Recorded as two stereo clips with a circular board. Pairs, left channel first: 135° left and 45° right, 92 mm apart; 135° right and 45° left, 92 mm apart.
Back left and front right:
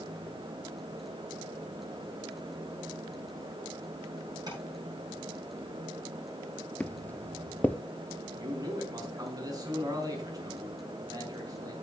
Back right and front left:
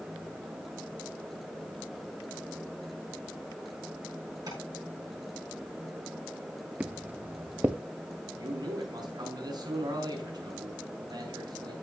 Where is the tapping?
Straight ahead, 8 m.